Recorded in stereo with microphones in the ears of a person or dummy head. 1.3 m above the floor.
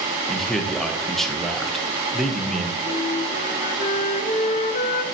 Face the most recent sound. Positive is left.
turn(degrees=40)  # may be behind; listen again after turning